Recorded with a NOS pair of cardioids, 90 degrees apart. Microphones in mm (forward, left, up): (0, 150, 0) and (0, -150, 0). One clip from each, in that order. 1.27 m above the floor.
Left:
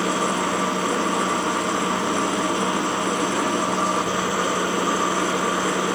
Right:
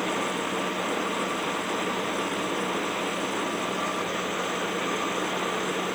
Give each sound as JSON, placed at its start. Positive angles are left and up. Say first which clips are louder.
{"t": 0.0, "sound": "a machine running", "louder": "left 6 dB", "azimuth_deg": 60}